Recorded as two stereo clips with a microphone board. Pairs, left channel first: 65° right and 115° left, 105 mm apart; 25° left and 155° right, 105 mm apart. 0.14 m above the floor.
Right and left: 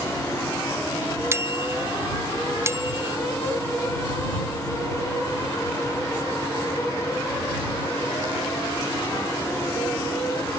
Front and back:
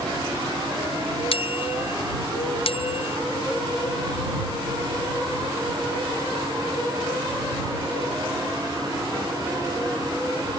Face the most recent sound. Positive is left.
turn(degrees=45)